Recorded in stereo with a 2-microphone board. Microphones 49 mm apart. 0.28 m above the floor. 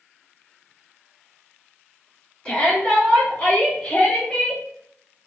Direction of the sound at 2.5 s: 20° left (ahead or behind).